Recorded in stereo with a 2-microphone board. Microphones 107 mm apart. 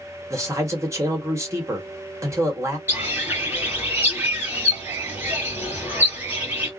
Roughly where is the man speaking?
Right.